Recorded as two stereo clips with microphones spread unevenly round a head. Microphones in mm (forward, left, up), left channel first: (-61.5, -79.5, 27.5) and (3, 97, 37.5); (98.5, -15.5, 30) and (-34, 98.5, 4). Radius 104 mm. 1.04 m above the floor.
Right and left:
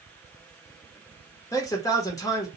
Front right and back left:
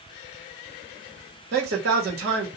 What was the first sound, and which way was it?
A man speaking, straight behind.